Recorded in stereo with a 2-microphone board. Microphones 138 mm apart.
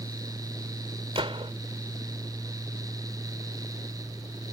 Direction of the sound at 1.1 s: 45° right (ahead or behind).